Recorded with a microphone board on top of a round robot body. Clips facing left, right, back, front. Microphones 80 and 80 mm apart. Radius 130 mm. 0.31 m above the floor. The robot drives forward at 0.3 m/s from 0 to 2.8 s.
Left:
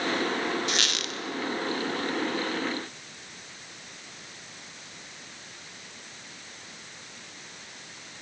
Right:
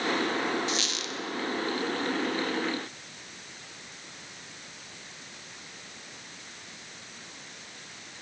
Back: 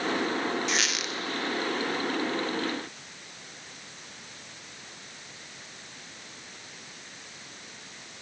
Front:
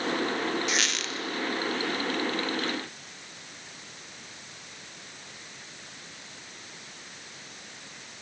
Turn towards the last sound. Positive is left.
turn(degrees=140)